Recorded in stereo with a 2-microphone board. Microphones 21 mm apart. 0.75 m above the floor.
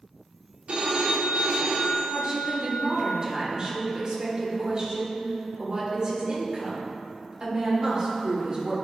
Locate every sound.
0.7 s a phone ringing: 70° right (ahead or behind), 1.0 m
2.1 s a woman speaking: 35° right (ahead or behind), 2.0 m